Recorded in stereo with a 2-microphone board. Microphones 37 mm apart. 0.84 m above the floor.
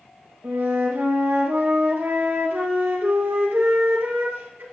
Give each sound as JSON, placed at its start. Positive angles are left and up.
{"t": 0.4, "sound": "a flute", "side_deg": -80, "distance_m": 5.5}